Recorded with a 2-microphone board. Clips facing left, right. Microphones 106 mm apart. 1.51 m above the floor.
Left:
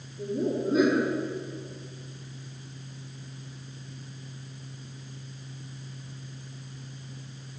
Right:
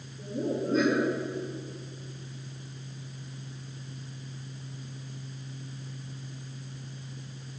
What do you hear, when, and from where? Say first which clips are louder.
0.2 s laughter: left 3 dB; 15° left (ahead or behind), 4.5 m